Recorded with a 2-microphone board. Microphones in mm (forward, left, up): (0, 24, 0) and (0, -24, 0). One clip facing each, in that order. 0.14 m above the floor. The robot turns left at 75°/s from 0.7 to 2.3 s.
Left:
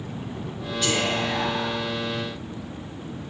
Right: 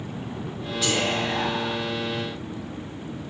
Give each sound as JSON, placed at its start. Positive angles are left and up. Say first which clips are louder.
{"t": 0.8, "sound": "whispering", "louder": "even", "side_deg": 0, "distance_m": 1.1}